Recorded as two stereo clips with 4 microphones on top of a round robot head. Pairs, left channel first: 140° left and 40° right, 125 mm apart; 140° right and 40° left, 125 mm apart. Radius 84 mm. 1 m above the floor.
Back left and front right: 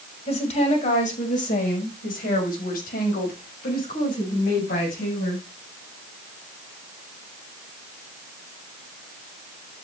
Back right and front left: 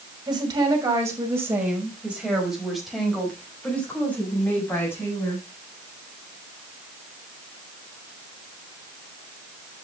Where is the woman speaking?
100° left, 6 m; by 5.5 s 150° left, 8.5 m.